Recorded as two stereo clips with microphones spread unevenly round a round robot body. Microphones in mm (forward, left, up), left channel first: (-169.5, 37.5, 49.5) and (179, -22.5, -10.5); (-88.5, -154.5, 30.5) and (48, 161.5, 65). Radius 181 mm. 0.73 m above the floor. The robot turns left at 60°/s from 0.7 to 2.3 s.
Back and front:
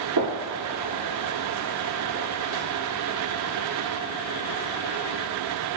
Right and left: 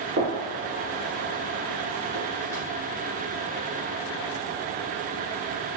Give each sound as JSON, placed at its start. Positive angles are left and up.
{"t": 0.2, "sound": "a gunshot", "azimuth_deg": 15, "distance_m": 1.7}